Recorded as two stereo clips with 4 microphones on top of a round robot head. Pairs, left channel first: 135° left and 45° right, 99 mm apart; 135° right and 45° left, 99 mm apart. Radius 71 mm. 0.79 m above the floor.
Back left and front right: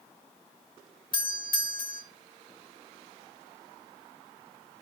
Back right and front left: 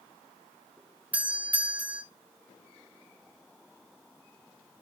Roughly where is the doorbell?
Behind left.